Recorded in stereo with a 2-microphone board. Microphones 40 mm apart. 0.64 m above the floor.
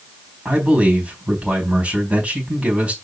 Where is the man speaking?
30° right (ahead or behind), 4 m.